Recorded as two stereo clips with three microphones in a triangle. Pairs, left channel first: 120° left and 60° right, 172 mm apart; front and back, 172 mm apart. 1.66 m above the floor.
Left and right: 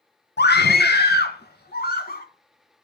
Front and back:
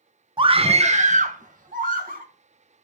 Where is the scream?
120° left, 1.0 m; by 2.2 s 145° left, 2.5 m.